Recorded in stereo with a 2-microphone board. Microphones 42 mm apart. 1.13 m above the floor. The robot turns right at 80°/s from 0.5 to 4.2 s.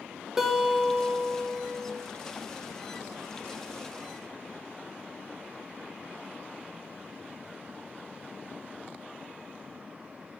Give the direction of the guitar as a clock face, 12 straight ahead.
6 o'clock.